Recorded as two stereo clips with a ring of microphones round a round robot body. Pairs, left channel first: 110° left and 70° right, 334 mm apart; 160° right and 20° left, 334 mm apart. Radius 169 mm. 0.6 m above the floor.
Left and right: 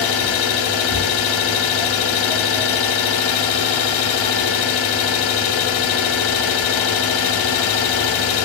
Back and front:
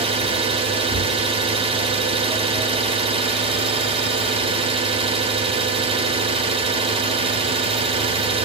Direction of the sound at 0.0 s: 95° left.